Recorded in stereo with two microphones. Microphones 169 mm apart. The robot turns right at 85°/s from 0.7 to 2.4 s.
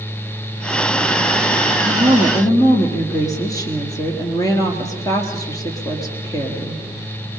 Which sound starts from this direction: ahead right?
A woman speaking, at 1.9 s.